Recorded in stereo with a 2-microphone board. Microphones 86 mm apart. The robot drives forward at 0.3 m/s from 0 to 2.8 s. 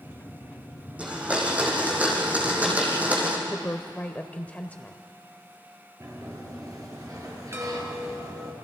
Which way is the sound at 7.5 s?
30° right (ahead or behind).